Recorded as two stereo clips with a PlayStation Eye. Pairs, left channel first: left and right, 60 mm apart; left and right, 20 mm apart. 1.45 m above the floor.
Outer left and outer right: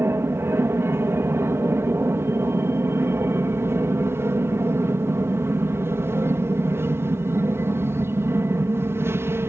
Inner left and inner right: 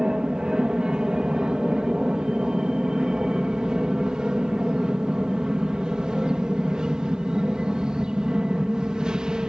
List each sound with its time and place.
0.0 s an aircraft: 45° right (ahead or behind)